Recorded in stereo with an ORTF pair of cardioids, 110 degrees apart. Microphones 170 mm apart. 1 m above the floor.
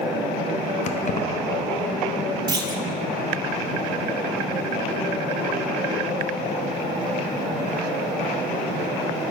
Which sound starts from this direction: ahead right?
A clunk, at 2.5 s.